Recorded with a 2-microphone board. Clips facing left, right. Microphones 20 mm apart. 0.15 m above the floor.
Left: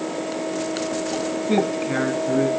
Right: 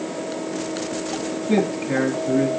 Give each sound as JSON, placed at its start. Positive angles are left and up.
{"t": 1.5, "sound": "a man speaking", "side_deg": 15, "distance_m": 1.1}